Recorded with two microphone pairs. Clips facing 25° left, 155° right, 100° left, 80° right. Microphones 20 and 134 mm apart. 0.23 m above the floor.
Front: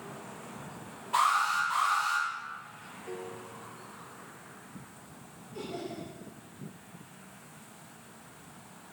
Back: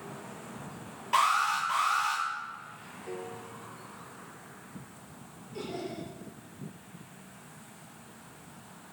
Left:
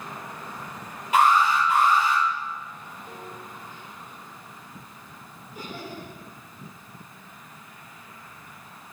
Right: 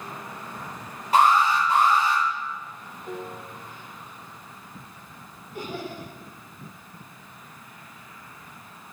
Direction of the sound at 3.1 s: 120° right.